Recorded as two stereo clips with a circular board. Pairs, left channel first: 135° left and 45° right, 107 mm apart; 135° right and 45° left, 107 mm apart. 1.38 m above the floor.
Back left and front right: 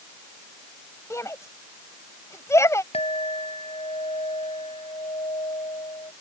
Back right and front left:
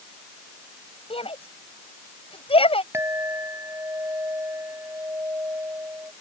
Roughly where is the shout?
Behind.